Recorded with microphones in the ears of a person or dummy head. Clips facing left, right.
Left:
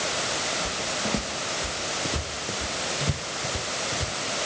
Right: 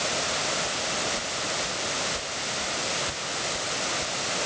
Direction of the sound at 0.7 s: 70° left (ahead or behind).